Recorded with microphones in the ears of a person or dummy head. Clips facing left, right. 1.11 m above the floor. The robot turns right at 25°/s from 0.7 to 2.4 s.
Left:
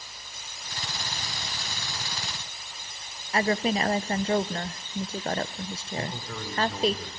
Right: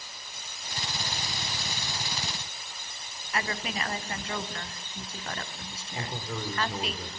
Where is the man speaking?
10° right (ahead or behind), 3.5 m.